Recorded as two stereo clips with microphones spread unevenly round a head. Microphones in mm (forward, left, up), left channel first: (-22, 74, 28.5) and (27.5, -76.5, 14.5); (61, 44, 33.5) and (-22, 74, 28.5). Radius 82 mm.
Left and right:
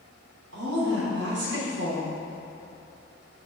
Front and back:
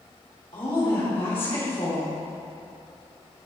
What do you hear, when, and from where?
0.5 s a woman speaking: 70° right, 3 m